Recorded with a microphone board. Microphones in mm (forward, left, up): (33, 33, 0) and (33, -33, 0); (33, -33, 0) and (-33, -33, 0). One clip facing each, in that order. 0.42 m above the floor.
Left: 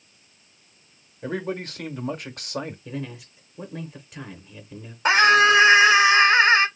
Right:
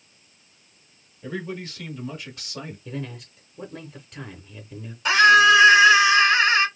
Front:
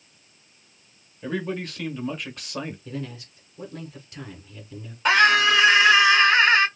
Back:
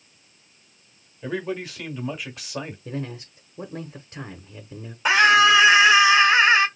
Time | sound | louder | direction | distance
1.2 | a man speaking | left 3 dB, even | 95° left | 1.2 m
2.9 | a man speaking | even, back 2 dB | 175° left | 0.8 m
5.0 | a scream | right 2 dB, back 2 dB | 105° left | 1.4 m